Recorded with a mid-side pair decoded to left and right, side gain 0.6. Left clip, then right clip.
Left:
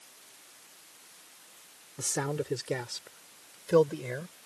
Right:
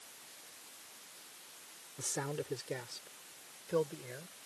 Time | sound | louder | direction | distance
2.0 | a man speaking | left 7 dB | 35° left | ?